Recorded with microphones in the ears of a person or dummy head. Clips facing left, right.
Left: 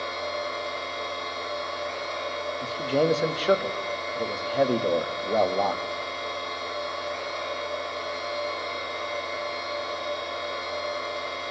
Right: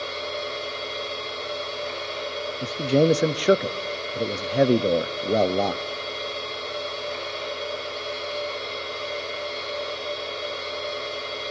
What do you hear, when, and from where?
0.0 s a machine running: 45° right (ahead or behind), 5.5 m
2.6 s a man speaking: 35° right (ahead or behind), 0.6 m